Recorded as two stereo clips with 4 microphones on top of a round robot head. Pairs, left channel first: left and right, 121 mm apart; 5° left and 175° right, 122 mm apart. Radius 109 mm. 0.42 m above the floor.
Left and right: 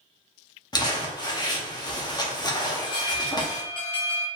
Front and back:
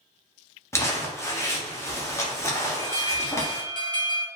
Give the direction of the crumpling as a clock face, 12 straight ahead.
10 o'clock.